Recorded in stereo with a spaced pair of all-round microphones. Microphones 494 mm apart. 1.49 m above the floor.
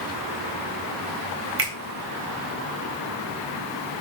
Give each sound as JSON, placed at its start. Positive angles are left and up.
{"t": 1.6, "sound": "a finger snap", "side_deg": -80, "distance_m": 1.9}